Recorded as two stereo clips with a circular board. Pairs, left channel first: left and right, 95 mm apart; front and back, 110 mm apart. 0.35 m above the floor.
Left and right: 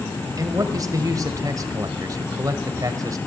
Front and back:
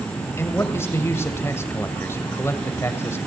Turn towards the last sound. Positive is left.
turn(degrees=-60)